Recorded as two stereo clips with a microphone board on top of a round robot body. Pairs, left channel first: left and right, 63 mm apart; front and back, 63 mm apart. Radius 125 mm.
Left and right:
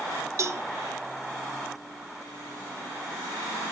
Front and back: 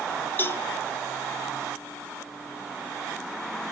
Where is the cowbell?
55° right, 1.2 m.